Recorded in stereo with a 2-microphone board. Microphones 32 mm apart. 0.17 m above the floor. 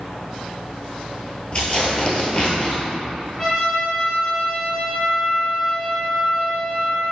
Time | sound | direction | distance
1.5 | tearing paper | 35° left (ahead or behind) | 1.2 m
3.4 | a trumpet | 15° left (ahead or behind) | 1.8 m